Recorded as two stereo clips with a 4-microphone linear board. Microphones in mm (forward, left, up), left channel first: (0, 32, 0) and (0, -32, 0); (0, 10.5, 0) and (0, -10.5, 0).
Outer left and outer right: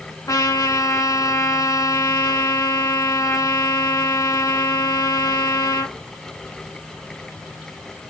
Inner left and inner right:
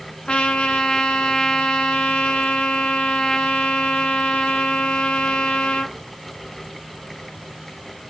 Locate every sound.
0.3 s a trumpet: 65° left (ahead or behind), 0.6 m